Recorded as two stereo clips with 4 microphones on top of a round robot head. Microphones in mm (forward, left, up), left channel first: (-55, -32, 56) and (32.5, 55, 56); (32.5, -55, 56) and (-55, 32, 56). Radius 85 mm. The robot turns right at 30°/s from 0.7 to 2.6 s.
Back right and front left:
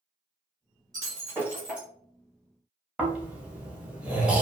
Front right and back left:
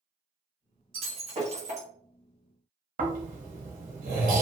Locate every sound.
0.9 s breaking glass: 100° left, 1.2 m; by 1.9 s 130° left, 1.2 m
3.0 s snoring: 125° left, 0.9 m